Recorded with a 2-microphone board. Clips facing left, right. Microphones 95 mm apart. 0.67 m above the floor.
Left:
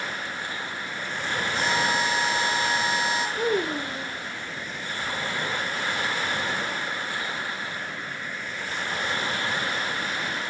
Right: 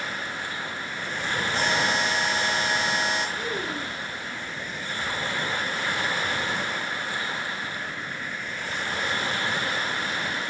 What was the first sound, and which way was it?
A buzzer, 85° right.